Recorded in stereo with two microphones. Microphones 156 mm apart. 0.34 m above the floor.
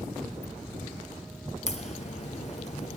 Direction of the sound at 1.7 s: 50° left (ahead or behind).